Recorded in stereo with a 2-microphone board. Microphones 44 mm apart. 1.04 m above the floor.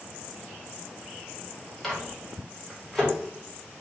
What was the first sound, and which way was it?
A microwave, 5° left (ahead or behind).